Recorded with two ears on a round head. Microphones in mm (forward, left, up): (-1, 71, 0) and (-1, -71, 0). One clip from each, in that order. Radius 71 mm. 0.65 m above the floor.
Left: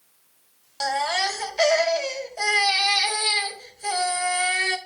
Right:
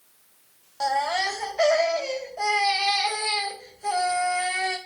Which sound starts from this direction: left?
A baby crying, at 0.8 s.